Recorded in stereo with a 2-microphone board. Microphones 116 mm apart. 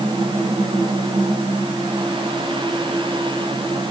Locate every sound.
Only background noise.